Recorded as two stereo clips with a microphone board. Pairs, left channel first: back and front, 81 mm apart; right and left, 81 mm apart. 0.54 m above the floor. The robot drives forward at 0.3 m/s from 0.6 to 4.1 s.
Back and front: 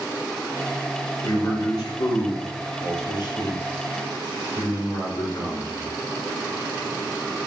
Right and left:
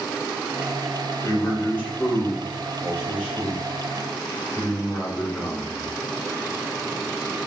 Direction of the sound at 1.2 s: 150° right.